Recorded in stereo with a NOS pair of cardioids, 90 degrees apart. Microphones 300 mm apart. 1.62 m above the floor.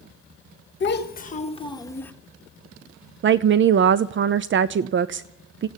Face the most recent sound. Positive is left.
turn(degrees=-40)